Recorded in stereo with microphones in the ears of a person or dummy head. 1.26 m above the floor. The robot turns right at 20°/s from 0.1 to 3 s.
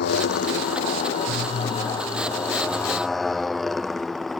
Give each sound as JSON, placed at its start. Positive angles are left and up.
{"t": 0.0, "sound": "a motorcycle", "side_deg": 55}